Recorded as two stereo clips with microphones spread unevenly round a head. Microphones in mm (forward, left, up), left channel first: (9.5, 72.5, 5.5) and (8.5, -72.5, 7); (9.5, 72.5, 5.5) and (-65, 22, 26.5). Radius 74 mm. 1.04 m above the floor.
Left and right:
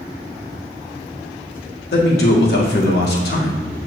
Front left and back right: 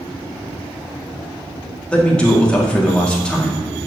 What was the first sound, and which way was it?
A man speaking, 110° left.